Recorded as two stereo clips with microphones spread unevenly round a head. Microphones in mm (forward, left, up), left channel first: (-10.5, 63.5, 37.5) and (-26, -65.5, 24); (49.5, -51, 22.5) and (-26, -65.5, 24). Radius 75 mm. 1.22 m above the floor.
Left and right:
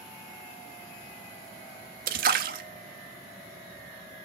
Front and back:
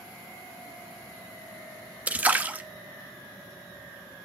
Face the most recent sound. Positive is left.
turn(degrees=-105)